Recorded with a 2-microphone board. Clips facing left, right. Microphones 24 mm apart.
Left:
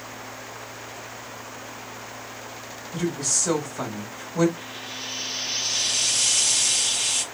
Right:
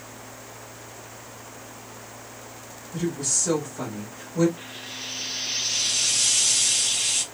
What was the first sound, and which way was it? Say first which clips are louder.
A woman speaking: left 1 dB; 35° left (ahead or behind).